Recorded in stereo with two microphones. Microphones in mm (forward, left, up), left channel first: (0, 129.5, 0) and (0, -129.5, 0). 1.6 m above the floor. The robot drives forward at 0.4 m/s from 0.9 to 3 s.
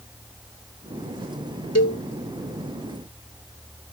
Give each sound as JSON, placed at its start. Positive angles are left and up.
{"t": 1.8, "sound": "a cowbell", "side_deg": 70}